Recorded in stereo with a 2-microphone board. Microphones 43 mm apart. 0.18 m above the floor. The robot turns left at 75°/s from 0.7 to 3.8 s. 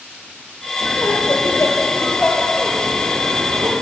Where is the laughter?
135° left, 5.5 m; by 3.7 s 85° right, 5.5 m.